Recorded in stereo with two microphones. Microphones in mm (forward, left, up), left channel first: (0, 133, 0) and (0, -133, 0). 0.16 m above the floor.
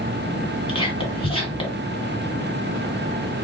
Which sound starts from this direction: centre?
Whispering, at 0.7 s.